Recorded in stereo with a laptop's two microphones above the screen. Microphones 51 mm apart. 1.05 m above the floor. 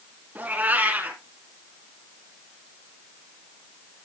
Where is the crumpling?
I don't hear crumpling.